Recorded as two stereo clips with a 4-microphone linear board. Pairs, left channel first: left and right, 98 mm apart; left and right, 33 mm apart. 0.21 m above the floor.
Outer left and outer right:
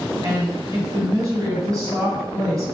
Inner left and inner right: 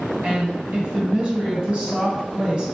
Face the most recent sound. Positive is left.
turn(degrees=-35)  # may be behind; listen again after turning